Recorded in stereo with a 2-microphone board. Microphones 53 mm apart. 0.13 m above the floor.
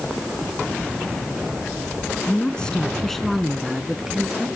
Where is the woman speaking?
20° left (ahead or behind), 1.4 m; by 4.5 s 10° right (ahead or behind), 2 m.